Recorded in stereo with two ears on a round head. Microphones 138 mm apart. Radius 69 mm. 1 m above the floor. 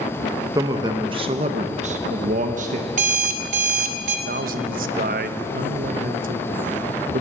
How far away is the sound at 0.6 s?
About 1.3 m.